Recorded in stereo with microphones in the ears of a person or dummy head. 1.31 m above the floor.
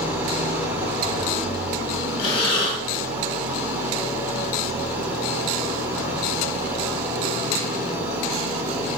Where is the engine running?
10° right (ahead or behind), 2.5 m.